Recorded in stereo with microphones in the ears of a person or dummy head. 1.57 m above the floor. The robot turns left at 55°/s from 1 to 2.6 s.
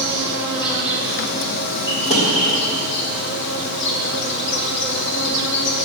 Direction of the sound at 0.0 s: 155° left.